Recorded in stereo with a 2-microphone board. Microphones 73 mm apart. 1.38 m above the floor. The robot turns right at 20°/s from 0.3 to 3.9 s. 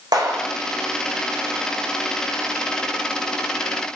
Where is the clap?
65° right (ahead or behind), 5 m.